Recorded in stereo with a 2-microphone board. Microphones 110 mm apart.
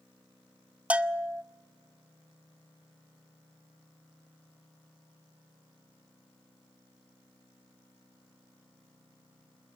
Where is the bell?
10° right (ahead or behind), 0.5 m.